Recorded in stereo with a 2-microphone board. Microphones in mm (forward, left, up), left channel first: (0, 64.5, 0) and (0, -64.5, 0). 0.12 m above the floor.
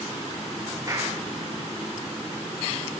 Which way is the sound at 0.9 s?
30° right (ahead or behind).